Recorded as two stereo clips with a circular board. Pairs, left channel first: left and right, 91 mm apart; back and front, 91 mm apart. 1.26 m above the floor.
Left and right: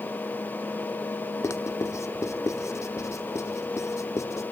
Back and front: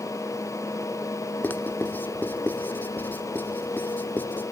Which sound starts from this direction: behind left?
Writing, at 1.4 s.